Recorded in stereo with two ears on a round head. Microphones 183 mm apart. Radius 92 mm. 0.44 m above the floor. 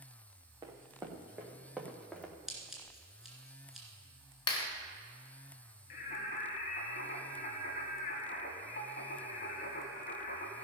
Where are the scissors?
Centre (ahead or behind), 2.5 m.